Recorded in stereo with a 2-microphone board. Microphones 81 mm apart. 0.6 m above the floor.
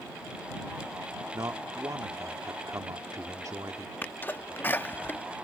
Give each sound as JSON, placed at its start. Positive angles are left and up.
{"t": 1.3, "sound": "a man speaking", "side_deg": -45}
{"t": 4.0, "sound": "a sneeze", "side_deg": 25}